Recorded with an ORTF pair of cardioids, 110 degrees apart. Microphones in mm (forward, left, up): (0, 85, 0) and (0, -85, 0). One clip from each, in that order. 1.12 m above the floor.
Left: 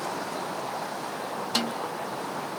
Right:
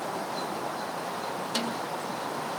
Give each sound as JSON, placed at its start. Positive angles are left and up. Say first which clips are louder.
{"t": 1.6, "sound": "a snare drum", "louder": "left 4 dB", "azimuth_deg": 25, "distance_m": 3.0}